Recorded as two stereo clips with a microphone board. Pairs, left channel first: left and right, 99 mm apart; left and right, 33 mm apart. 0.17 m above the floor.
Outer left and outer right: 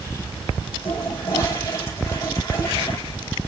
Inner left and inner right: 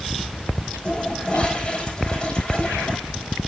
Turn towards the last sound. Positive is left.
turn(degrees=35)  # may be behind; listen again after turning